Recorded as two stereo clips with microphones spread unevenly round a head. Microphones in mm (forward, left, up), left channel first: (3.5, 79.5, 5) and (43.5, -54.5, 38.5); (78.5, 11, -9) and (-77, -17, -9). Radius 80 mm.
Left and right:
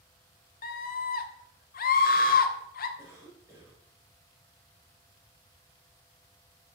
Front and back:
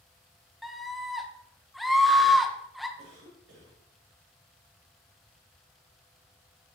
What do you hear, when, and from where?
0.6 s a scream: 100° left, 1.0 m
3.0 s a cough: 145° right, 3 m